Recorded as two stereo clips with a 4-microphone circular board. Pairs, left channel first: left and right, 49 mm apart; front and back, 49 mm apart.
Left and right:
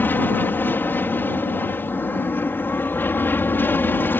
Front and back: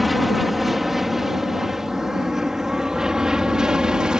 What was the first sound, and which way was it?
An aircraft, 95° left.